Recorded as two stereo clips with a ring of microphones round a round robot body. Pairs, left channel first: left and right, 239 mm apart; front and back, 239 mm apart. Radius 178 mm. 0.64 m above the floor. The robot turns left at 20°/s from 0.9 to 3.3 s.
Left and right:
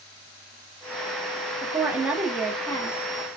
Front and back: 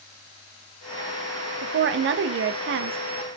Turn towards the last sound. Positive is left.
turn(degrees=160)